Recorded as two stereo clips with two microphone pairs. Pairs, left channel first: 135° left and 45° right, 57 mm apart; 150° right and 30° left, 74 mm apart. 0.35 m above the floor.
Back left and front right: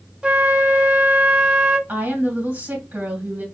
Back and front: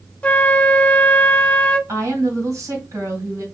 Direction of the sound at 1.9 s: 5° left.